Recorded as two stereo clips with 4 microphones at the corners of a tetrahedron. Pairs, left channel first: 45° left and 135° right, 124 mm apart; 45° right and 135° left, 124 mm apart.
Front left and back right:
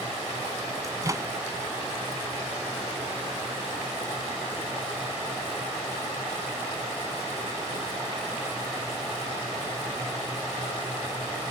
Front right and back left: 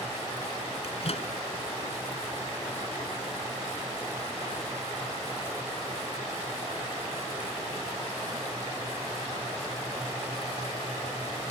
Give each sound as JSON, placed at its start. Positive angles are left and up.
{"t": 0.8, "sound": "a microwave", "azimuth_deg": -75}